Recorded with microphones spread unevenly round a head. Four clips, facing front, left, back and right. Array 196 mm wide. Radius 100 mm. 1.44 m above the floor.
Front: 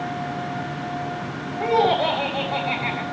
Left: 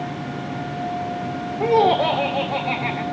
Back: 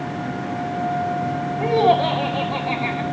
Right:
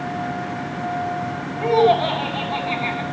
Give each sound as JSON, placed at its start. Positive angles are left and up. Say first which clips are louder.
{"t": 1.6, "sound": "laughter", "louder": "right 1 dB, back 2 dB", "azimuth_deg": 100, "distance_m": 2.0}